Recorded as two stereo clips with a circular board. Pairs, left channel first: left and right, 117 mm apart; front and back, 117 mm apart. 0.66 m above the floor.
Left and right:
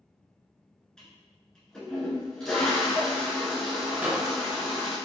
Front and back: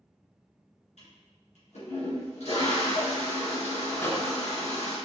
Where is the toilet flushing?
5° left, 1.7 m.